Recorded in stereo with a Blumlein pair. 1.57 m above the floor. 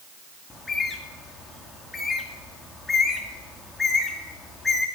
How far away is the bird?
About 2.0 m.